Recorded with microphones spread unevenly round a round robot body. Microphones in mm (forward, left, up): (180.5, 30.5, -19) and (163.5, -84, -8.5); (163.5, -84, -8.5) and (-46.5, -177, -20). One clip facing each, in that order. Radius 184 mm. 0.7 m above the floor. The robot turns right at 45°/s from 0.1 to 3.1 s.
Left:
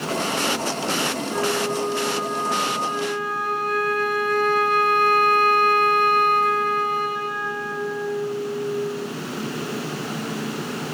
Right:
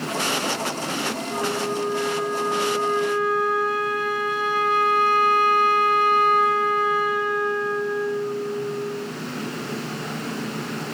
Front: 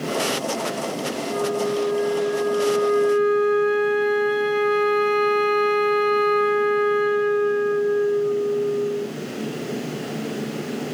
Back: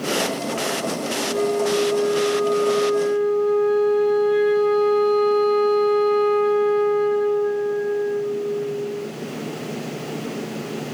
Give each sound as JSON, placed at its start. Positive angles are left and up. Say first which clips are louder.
{"t": 1.3, "sound": "a flute", "louder": "left 2 dB, back 3 dB", "azimuth_deg": -25, "distance_m": 1.7}